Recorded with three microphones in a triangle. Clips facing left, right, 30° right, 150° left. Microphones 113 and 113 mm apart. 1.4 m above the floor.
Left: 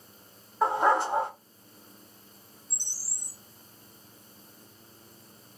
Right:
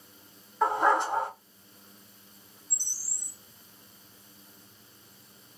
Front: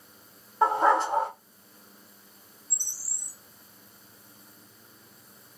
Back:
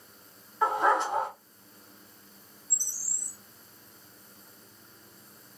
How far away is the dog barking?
About 1.7 m.